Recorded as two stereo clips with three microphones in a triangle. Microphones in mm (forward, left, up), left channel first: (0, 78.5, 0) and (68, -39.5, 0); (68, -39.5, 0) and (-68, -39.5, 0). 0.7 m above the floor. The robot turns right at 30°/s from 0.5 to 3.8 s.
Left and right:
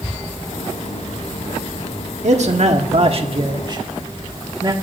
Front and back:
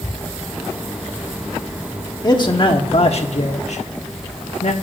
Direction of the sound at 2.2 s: 55° right.